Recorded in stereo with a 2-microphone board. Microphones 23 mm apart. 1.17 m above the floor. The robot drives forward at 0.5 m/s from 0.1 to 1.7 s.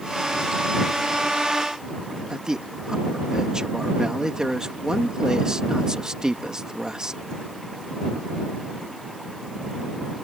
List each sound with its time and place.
2.3 s a man speaking: 30° right (ahead or behind)